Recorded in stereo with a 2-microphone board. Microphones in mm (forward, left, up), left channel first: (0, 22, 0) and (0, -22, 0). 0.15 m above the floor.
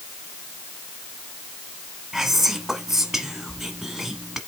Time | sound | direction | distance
2.1 | whispering | 5° right (ahead or behind) | 1.1 m